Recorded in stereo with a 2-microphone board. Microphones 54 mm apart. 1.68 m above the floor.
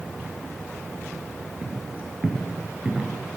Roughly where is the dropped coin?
I don't hear a dropped coin.